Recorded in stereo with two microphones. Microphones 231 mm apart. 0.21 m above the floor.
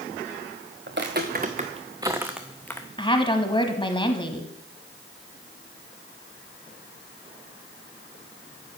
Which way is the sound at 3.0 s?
20° left (ahead or behind).